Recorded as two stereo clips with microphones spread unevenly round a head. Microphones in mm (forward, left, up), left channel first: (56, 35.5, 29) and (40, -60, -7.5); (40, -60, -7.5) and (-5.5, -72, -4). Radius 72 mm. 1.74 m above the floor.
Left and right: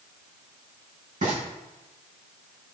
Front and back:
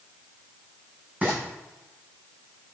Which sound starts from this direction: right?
Frying, at 1.2 s.